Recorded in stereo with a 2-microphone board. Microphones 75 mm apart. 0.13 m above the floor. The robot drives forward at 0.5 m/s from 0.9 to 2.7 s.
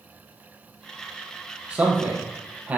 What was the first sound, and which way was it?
A man speaking, 20° right (ahead or behind).